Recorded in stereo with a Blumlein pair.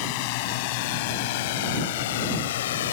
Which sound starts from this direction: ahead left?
A drone, at 0.0 s.